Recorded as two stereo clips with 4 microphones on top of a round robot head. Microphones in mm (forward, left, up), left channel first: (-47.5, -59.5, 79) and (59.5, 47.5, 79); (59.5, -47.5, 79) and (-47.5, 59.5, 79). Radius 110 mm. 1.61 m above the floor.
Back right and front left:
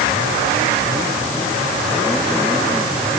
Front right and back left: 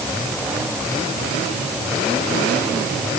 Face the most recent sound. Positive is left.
No sound to turn to.